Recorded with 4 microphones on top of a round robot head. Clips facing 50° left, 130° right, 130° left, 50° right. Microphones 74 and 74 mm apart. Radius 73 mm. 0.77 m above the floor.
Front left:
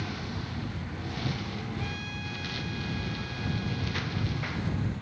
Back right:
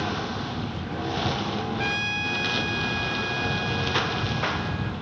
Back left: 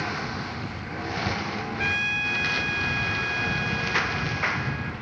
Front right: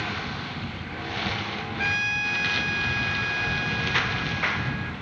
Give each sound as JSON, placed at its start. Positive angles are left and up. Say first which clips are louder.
{"t": 0.0, "sound": "a lawn mower", "louder": "back right 8 dB, back left 1 dB", "azimuth_deg": -155}
{"t": 1.8, "sound": "a trumpet", "louder": "back right 9 dB, front right 2 dB", "azimuth_deg": -135}